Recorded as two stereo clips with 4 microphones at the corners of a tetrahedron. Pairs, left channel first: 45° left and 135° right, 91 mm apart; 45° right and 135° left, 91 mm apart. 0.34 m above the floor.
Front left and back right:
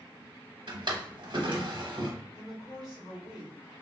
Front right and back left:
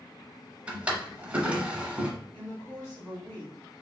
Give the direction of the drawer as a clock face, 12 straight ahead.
5 o'clock.